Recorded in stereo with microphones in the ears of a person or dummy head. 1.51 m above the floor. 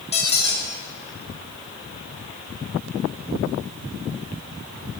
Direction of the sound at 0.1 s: 35° left (ahead or behind).